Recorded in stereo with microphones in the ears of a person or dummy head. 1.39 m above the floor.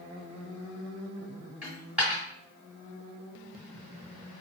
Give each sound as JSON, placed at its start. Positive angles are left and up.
{"t": 1.6, "sound": "a dropped coin", "side_deg": -5, "distance_m": 1.6}